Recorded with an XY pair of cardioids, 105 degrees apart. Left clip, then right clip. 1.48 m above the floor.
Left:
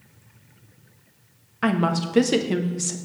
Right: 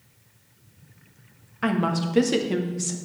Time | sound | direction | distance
1.6 | a woman speaking | 15° left | 0.8 m